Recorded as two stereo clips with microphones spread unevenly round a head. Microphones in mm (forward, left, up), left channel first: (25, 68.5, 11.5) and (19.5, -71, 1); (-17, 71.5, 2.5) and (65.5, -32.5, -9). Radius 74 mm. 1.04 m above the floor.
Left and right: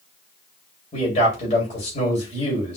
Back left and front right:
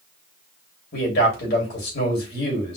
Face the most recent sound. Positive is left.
turn(degrees=135)